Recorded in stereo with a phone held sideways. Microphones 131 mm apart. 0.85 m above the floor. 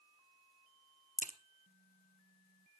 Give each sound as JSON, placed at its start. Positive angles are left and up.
{"t": 1.2, "sound": "a crack", "side_deg": 85, "distance_m": 0.9}